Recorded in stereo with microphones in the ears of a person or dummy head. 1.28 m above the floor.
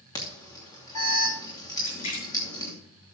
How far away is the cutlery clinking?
I don't hear cutlery clinking.